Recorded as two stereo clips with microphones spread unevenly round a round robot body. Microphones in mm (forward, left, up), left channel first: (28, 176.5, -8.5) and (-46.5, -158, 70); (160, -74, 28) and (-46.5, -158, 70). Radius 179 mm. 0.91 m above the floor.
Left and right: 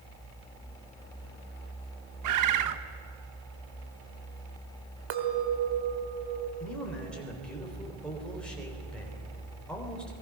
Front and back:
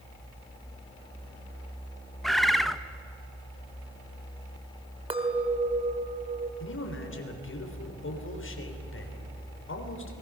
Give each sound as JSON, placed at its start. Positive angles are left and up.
{"t": 2.2, "sound": "a bird", "azimuth_deg": -60, "distance_m": 1.1}
{"t": 5.1, "sound": "a clink", "azimuth_deg": -90, "distance_m": 2.0}
{"t": 6.6, "sound": "a man speaking", "azimuth_deg": -10, "distance_m": 3.5}